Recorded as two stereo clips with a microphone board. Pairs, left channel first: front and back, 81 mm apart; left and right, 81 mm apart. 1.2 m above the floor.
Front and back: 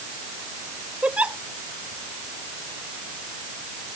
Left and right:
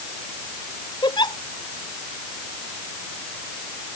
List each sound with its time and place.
1.0 s a giggle: 105° left